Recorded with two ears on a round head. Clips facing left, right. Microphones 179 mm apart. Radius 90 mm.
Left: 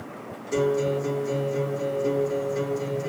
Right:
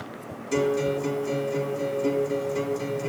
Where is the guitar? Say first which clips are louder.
Left 1 dB; 45° right (ahead or behind), 5 m.